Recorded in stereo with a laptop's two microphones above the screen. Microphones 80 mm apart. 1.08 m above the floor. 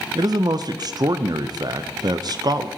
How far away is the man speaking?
About 0.7 m.